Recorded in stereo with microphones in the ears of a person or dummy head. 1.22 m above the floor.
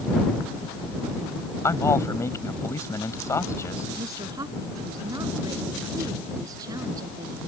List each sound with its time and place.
1.6 s a man speaking: 15° left (ahead or behind)
4.0 s a woman speaking: 20° right (ahead or behind)